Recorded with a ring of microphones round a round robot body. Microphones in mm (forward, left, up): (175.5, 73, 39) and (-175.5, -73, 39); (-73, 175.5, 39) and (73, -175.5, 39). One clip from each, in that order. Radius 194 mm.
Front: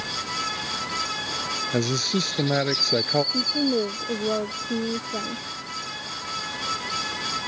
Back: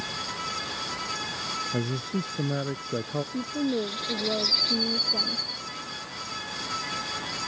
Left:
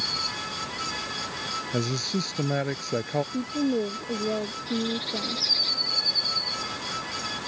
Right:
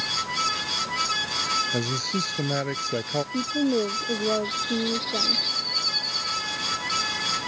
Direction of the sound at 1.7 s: 20° left.